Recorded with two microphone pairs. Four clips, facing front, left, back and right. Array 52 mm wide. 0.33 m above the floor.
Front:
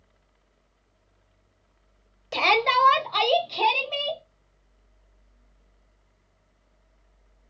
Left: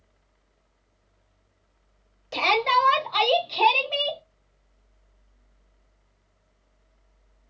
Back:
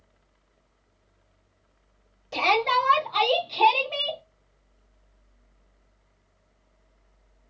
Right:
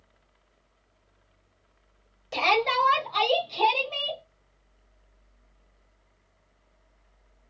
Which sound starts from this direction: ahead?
A shout, at 2.3 s.